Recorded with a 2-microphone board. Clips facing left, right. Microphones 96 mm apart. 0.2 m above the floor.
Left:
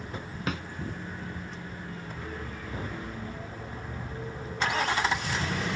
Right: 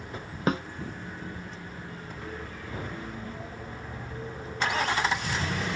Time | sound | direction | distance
0.5 | a snare drum | 35° right (ahead or behind) | ?